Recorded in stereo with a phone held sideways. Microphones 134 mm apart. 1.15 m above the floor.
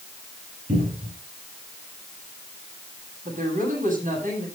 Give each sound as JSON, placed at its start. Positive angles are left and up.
{"t": 0.7, "sound": "a cupboard door", "side_deg": -85, "distance_m": 9.0}
{"t": 3.2, "sound": "a woman speaking", "side_deg": -75, "distance_m": 9.0}